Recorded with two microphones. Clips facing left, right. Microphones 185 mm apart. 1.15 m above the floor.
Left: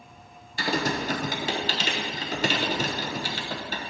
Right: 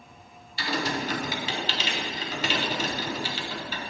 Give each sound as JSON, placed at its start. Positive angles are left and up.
{"t": 0.6, "sound": "typing on a keyboard", "side_deg": 50, "distance_m": 0.9}